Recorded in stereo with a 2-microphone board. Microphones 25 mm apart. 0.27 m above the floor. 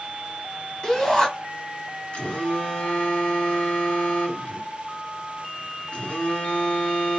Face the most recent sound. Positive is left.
turn(degrees=45)  # may be behind; listen again after turning